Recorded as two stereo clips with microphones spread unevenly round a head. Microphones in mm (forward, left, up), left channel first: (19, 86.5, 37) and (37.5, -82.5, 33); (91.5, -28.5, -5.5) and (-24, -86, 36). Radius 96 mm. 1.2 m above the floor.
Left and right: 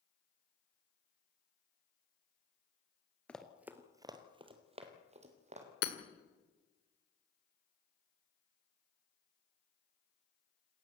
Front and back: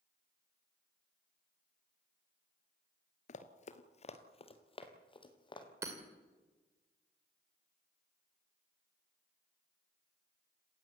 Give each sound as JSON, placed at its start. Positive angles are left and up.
{"t": 3.3, "sound": "running footsteps", "azimuth_deg": 20, "distance_m": 1.3}
{"t": 5.8, "sound": "hammering", "azimuth_deg": 135, "distance_m": 1.9}